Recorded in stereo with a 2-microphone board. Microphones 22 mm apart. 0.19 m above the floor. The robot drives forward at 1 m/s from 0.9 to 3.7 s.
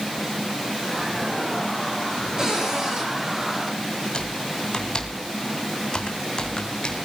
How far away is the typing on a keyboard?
About 3 m.